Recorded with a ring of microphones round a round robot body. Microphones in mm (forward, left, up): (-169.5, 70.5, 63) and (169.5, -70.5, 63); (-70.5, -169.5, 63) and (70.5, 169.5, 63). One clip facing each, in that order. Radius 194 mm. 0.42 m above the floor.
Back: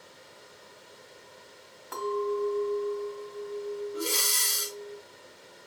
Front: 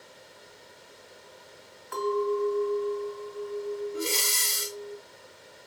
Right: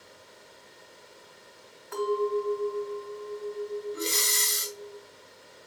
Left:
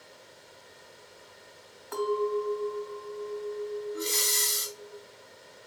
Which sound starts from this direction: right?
Breathing, at 3.9 s.